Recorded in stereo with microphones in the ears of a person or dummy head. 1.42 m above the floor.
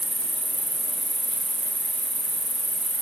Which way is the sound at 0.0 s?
25° right (ahead or behind).